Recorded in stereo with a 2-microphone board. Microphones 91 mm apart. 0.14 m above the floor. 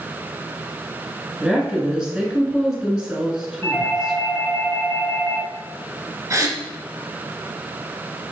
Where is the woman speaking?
10° right (ahead or behind), 1.7 m.